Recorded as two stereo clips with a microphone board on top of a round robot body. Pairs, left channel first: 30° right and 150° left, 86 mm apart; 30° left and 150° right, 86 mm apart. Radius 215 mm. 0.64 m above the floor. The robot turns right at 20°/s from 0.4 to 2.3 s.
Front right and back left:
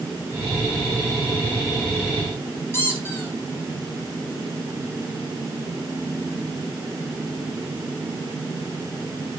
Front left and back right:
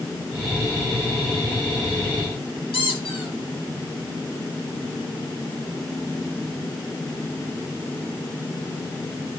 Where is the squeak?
30° left, 2.5 m.